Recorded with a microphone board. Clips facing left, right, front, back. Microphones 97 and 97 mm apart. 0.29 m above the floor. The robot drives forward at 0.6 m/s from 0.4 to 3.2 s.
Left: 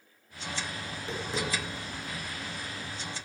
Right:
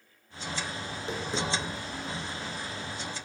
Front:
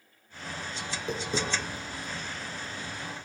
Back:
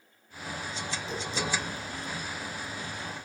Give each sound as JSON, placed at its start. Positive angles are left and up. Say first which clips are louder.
{"t": 0.9, "sound": "tapping", "louder": "right 1 dB, front 5 dB", "azimuth_deg": -20, "distance_m": 4.5}